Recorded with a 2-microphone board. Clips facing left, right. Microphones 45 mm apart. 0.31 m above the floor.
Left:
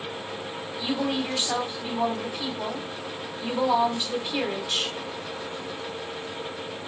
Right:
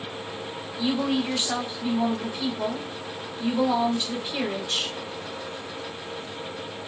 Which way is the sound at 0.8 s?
5° left (ahead or behind).